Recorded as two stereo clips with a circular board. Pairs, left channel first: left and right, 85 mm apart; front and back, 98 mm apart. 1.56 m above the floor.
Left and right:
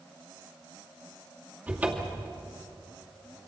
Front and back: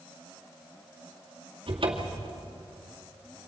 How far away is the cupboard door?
About 2 m.